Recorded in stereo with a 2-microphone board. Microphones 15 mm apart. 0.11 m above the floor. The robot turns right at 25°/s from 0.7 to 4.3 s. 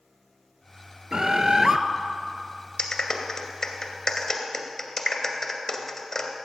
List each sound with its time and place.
1.1 s a bird: 40° right (ahead or behind), 0.7 m; by 1.8 s 25° right (ahead or behind), 0.7 m
2.8 s a clap: 40° left (ahead or behind), 1.8 m; by 6.5 s 30° left (ahead or behind), 1.8 m